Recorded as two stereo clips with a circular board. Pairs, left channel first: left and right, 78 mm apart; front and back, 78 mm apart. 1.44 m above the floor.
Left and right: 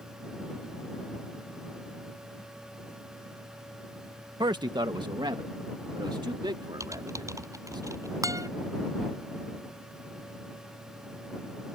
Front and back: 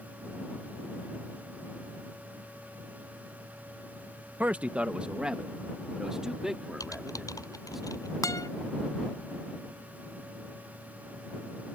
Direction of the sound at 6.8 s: 45° right.